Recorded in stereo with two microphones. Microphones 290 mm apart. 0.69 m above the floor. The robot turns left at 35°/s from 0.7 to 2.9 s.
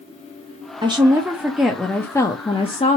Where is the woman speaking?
150° right, 0.6 m; by 3.0 s 135° left, 0.6 m.